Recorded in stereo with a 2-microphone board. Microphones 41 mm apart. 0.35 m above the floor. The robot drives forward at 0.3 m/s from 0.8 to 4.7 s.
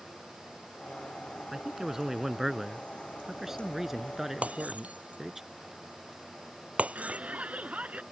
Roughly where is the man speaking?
Centre.